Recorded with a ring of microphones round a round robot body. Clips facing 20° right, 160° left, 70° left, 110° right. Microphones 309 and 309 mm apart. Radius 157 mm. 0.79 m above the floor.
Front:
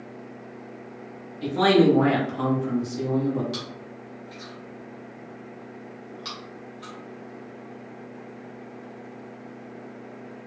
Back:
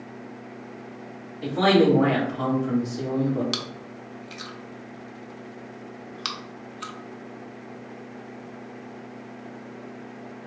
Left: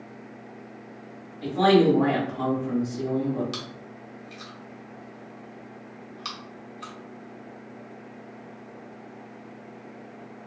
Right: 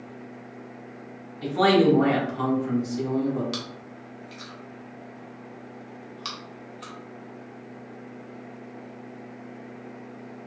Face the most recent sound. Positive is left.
turn(degrees=160)